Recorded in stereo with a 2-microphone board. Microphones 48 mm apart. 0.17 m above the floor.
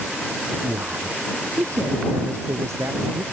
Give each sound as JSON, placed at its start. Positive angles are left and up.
{"t": 0.6, "sound": "a man speaking", "side_deg": -60}